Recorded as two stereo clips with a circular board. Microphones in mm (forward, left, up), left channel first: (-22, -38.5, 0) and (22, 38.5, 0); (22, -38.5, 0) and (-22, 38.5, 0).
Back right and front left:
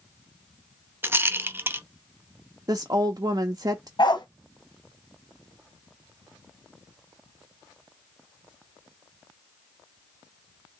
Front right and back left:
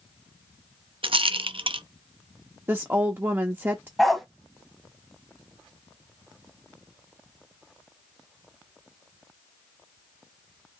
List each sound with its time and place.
1.0 s a rattle: 125° left, 0.5 m
2.7 s a woman speaking: 70° left, 0.6 m
4.0 s a dog barking: 145° right, 1.0 m